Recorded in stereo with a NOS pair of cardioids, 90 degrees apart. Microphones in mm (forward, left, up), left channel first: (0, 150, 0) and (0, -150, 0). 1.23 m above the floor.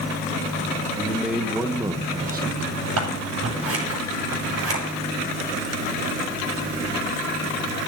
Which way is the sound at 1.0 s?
5° left.